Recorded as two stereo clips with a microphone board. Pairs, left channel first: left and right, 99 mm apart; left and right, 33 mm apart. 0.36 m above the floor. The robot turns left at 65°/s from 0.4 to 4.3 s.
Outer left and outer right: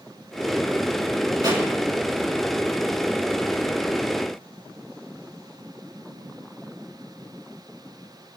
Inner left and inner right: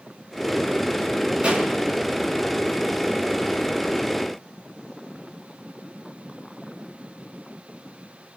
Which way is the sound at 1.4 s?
45° right (ahead or behind).